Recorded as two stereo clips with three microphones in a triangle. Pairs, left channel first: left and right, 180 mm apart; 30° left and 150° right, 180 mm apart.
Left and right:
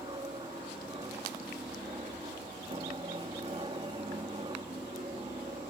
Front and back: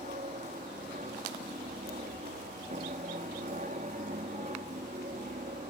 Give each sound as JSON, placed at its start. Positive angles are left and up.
{"t": 0.0, "sound": "an aircraft", "azimuth_deg": -140}